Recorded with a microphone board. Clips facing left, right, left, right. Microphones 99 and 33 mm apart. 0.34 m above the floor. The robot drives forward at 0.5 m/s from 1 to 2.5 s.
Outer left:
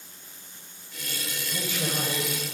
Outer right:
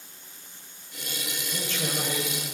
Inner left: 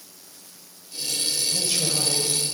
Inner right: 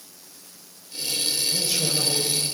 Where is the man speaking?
10° left (ahead or behind), 1.2 m.